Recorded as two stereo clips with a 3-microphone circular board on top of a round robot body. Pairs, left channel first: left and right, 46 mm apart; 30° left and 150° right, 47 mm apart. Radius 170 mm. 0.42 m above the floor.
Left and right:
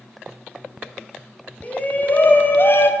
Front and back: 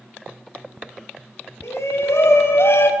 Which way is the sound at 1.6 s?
30° left.